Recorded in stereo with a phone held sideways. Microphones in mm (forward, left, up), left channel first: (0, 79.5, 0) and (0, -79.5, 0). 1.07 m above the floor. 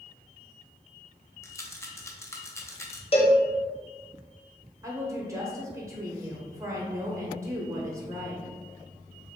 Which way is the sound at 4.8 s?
20° right (ahead or behind).